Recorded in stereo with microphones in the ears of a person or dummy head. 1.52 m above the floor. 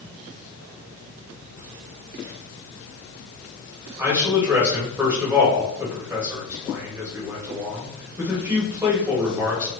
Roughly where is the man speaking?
Centre.